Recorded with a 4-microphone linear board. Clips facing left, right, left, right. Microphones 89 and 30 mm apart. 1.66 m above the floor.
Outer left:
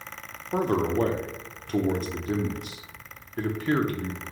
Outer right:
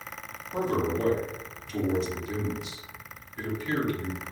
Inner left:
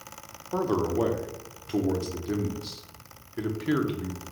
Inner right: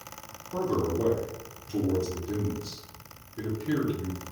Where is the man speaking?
50° left (ahead or behind), 0.8 m.